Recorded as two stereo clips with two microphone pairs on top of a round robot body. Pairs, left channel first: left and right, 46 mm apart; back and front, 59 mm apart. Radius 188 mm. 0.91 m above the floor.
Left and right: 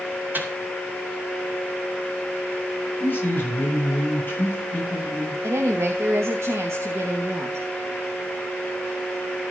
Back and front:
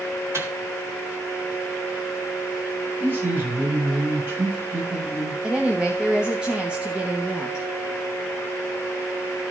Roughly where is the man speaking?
Ahead left.